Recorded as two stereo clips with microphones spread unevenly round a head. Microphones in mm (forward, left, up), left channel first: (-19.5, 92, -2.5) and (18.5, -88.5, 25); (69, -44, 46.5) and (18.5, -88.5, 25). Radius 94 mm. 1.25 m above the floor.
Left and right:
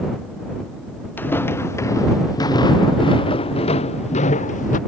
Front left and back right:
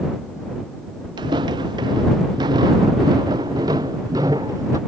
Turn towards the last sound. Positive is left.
turn(degrees=155)